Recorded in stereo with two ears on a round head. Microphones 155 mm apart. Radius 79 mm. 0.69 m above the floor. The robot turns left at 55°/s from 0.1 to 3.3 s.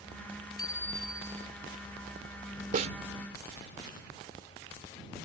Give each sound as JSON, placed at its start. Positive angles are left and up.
{"t": 0.6, "sound": "a bicycle bell", "azimuth_deg": 25}
{"t": 2.7, "sound": "a snare drum", "side_deg": -50}